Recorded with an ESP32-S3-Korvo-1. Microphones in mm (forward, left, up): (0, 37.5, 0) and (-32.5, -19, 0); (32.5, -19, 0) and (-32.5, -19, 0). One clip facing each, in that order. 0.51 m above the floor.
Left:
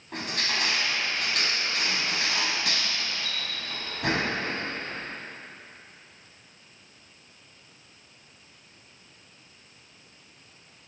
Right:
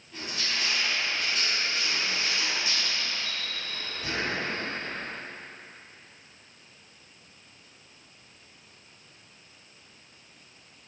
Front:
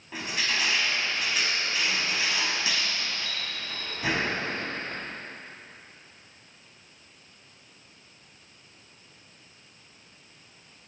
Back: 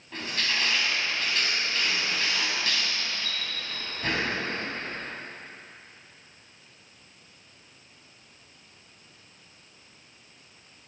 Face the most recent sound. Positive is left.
turn(degrees=80)